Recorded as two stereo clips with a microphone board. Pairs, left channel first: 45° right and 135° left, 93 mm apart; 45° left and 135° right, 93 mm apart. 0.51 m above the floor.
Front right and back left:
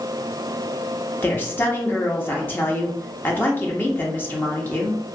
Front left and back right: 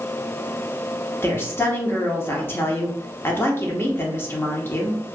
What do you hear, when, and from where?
1.2 s a woman speaking: 5° left, 0.7 m